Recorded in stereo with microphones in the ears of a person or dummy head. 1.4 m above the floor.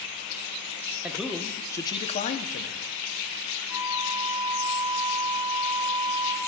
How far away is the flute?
About 6 m.